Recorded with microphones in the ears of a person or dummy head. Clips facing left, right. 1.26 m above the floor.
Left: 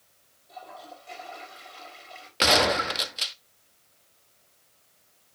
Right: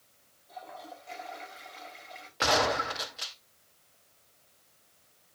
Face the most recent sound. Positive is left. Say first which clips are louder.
# left 4 dB
turn(degrees=45)  # may be behind; listen again after turning